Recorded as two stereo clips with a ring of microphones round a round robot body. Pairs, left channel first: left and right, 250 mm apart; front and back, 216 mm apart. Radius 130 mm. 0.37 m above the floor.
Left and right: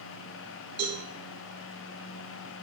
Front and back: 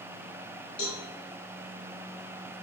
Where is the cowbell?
40° right, 4 m.